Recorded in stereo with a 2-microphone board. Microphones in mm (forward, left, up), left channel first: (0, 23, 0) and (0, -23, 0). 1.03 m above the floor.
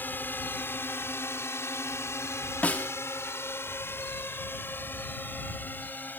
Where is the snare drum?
35° left (ahead or behind).